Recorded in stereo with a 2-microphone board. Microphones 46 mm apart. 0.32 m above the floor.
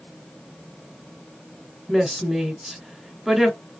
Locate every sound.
1.9 s a woman speaking: 5° right (ahead or behind), 1.6 m